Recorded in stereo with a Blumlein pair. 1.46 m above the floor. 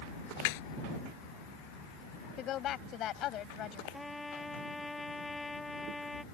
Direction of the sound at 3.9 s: 10° left.